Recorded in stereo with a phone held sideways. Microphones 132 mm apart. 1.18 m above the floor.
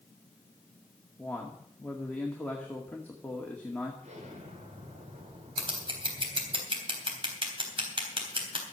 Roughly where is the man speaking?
Centre.